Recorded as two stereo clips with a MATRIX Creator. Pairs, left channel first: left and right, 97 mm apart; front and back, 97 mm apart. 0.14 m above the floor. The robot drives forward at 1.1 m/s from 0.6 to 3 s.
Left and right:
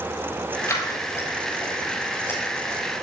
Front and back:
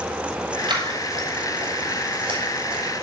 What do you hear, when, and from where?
0.7 s scissors: 145° left, 5.5 m; by 3.0 s 155° left, 7.5 m